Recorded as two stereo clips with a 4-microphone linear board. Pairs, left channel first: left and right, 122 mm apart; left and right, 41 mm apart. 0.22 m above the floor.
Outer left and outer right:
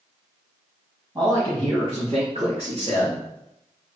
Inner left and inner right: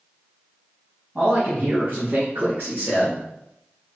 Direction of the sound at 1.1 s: 35° right (ahead or behind).